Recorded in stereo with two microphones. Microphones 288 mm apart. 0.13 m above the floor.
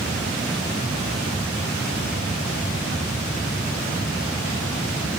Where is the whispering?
No whispering in this recording.